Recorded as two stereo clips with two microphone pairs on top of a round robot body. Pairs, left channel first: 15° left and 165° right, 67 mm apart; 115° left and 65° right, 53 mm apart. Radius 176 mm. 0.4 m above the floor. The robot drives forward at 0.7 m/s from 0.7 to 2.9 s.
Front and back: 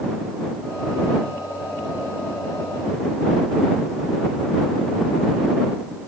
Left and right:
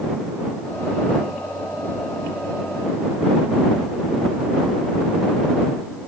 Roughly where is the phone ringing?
I don't hear a phone ringing.